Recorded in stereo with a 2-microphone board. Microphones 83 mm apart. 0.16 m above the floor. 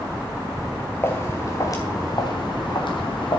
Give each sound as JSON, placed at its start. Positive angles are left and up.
{"t": 1.0, "sound": "footsteps", "side_deg": 30, "distance_m": 2.0}